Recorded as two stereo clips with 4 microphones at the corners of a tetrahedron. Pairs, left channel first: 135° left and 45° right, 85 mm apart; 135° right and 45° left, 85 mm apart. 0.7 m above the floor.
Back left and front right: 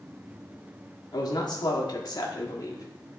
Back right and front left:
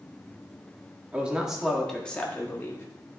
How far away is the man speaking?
About 1.6 m.